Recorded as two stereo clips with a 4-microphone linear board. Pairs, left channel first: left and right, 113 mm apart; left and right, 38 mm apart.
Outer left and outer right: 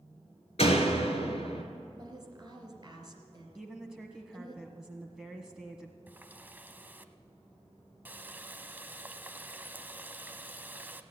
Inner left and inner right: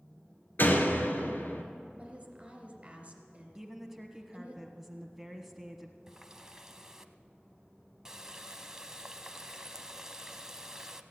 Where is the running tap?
15° right (ahead or behind), 0.7 m.